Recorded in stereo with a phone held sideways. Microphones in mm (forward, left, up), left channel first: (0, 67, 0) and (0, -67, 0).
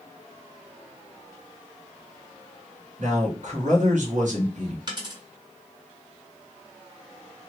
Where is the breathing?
I don't hear breathing.